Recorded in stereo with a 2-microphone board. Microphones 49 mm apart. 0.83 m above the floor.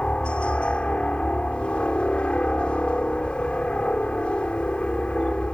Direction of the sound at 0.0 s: 20° left (ahead or behind).